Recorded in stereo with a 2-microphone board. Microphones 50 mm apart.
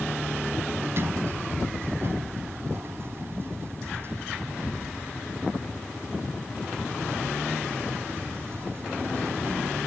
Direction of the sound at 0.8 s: 55° right (ahead or behind).